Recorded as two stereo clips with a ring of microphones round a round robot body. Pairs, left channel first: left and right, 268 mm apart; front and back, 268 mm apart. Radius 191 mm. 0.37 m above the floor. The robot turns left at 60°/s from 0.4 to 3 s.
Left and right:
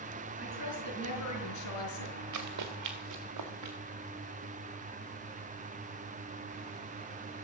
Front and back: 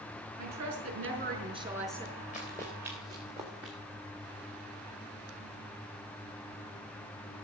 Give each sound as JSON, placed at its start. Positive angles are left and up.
{"t": 0.4, "sound": "a woman speaking", "azimuth_deg": 180, "distance_m": 5.0}
{"t": 2.3, "sound": "running footsteps", "azimuth_deg": -70, "distance_m": 2.0}